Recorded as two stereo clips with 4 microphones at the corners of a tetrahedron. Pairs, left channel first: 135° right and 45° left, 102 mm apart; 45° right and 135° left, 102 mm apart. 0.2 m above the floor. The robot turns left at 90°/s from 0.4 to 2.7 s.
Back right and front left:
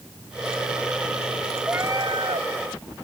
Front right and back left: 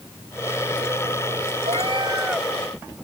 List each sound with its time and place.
1.6 s a cat meowing: 125° left; by 2.5 s 50° left